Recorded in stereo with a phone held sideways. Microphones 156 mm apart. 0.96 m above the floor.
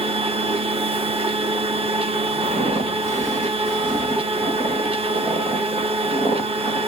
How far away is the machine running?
About 0.8 m.